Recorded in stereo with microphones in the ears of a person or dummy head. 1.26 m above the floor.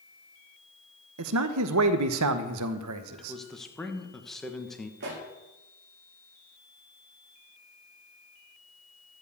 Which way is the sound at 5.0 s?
60° right (ahead or behind).